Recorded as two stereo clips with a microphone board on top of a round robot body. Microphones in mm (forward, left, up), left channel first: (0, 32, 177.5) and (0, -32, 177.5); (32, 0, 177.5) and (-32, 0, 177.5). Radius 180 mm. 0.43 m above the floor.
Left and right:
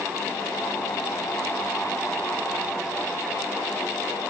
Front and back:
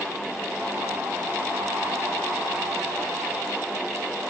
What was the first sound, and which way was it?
Only background noise.